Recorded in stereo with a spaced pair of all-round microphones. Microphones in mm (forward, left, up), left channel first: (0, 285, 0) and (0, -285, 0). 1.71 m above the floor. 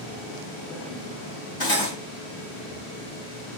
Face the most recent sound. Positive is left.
turn(degrees=40)  # may be behind; listen again after turning